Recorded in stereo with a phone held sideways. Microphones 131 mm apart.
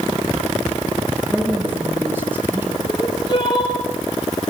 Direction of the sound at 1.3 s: 15° right (ahead or behind).